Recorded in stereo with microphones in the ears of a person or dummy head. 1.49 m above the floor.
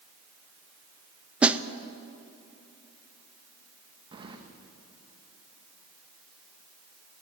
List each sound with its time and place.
1.4 s a snare drum: 10° right (ahead or behind), 0.5 m
4.1 s keys jangling: 25° right (ahead or behind), 1.3 m